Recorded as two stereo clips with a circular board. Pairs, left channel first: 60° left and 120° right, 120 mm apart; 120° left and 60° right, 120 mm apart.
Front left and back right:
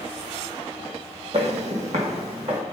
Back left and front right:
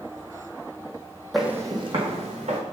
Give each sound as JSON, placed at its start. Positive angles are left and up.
{"t": 1.3, "sound": "footsteps", "azimuth_deg": -150, "distance_m": 0.9}